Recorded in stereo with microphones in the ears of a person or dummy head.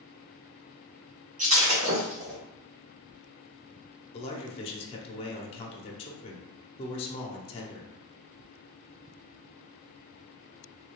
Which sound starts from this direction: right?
Breaking glass, at 1.4 s.